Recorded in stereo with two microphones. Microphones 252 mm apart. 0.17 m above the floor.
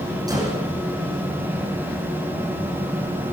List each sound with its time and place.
0.3 s a gunshot: 15° right (ahead or behind), 9 m